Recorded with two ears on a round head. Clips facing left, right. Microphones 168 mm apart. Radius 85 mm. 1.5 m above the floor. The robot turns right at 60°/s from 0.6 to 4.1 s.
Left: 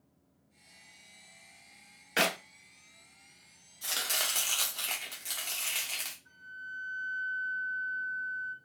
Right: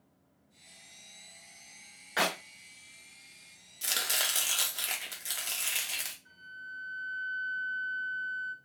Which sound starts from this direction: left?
A clap, at 2.2 s.